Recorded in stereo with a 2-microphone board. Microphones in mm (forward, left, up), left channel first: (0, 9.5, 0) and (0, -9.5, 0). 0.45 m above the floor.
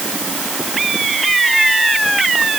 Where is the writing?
I don't hear writing.